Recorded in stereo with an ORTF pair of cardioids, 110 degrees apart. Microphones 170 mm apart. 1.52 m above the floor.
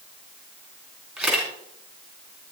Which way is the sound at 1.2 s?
5° right.